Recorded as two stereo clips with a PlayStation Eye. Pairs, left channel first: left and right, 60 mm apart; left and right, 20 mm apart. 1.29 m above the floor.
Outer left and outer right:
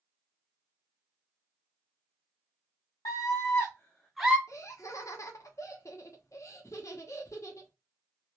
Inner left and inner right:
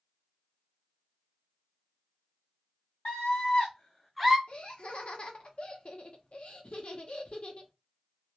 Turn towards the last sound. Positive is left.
turn(degrees=55)  # may be behind; listen again after turning